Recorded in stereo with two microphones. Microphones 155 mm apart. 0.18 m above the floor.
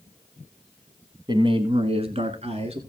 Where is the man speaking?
30° right (ahead or behind), 1.1 m; by 2.8 s 40° right (ahead or behind), 2.5 m.